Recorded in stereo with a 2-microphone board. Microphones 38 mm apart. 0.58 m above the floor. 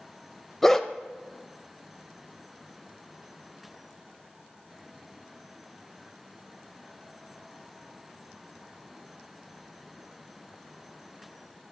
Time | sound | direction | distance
0.6 | a dog barking | 5° left (ahead or behind) | 0.6 m